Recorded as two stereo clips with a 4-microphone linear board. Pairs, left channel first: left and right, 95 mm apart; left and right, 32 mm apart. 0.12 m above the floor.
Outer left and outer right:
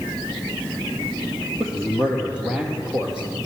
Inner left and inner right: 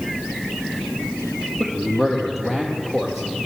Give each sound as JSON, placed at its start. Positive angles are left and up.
{"t": 1.6, "sound": "a man speaking", "side_deg": -10, "distance_m": 3.0}